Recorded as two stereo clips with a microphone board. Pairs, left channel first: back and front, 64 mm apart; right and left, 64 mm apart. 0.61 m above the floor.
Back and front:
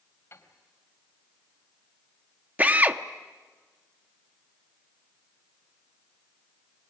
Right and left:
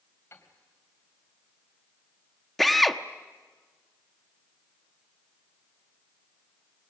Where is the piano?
140° right, 3 m.